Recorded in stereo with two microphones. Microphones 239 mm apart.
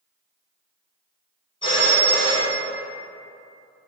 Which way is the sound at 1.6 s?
20° left (ahead or behind).